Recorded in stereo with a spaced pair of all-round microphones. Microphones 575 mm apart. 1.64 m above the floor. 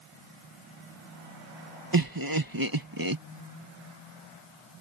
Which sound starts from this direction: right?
Laughter, at 1.9 s.